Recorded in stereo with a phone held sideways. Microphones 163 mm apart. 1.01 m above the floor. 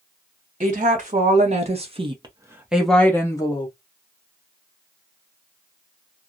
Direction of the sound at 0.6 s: 50° right (ahead or behind).